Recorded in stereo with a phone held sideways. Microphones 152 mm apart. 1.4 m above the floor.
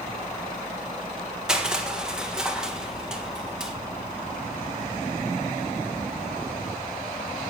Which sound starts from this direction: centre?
Crushing, at 1.5 s.